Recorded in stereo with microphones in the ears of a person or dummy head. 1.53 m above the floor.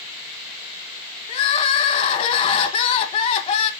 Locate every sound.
1.3 s crying: 30° left (ahead or behind), 1.0 m